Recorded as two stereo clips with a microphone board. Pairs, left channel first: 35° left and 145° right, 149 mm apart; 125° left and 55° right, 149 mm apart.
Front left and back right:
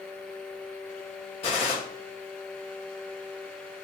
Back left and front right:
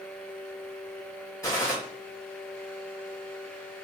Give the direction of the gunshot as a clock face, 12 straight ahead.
10 o'clock.